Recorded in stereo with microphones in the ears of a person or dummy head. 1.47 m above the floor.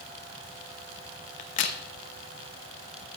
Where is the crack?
40° left (ahead or behind), 1.0 m.